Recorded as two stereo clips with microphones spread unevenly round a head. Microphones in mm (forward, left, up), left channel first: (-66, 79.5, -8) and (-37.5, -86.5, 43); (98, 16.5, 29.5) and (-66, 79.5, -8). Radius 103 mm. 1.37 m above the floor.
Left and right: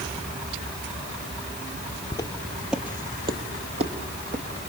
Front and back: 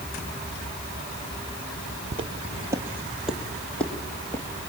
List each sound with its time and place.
2.1 s footsteps: 165° left, 1.4 m; by 4.7 s 90° right, 3 m